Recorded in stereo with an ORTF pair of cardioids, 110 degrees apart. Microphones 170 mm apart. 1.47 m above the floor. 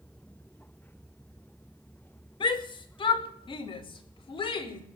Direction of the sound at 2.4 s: 30° left.